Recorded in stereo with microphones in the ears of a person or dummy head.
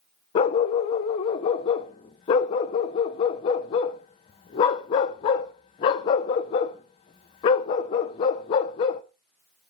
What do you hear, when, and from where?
0.3 s a dog barking: 25° left (ahead or behind), 0.8 m